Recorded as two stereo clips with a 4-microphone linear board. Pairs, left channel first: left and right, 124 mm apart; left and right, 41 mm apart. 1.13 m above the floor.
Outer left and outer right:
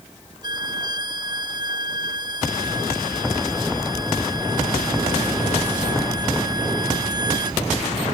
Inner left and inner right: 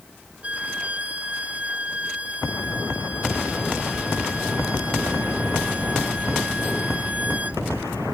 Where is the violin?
35° right (ahead or behind).